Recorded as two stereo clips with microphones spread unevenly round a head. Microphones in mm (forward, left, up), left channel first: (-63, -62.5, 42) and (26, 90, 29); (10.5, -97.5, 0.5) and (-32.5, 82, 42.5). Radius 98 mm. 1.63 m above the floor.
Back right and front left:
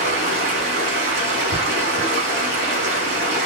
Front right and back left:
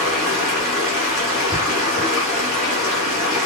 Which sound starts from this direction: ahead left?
Running water, at 0.0 s.